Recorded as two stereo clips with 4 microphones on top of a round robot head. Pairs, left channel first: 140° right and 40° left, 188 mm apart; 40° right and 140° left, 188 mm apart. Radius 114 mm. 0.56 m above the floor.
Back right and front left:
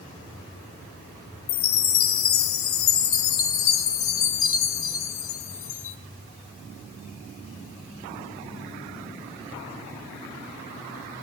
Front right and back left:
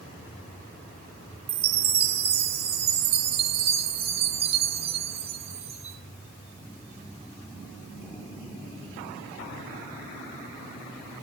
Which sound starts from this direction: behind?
A chime, at 1.5 s.